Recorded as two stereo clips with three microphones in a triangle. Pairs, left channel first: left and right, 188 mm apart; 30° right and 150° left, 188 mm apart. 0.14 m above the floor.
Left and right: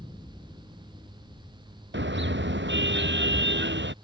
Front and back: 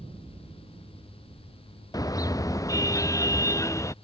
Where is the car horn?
100° right; by 3.9 s 105° right.